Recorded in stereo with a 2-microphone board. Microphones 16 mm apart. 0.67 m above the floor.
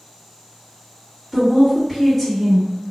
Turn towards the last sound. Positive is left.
turn(degrees=-15)  # may be behind; listen again after turning